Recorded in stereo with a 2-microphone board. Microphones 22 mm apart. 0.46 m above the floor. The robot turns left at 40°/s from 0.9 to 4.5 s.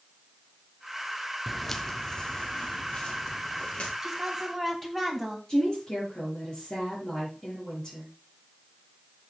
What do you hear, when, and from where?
1.5 s footsteps: 5° right (ahead or behind), 0.9 m; by 3.9 s 70° left (ahead or behind), 3.5 m
4.0 s a woman speaking: 15° right (ahead or behind), 3.5 m; by 5.4 s 5° left (ahead or behind), 3.5 m
5.5 s a woman speaking: 40° left (ahead or behind), 7.5 m